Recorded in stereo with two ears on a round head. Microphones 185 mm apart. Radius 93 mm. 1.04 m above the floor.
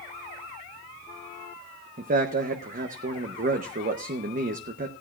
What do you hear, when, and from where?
2.0 s a man speaking: 40° right (ahead or behind), 0.9 m